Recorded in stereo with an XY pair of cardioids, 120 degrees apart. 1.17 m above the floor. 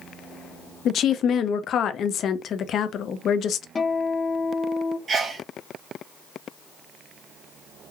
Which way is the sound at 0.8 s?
55° left.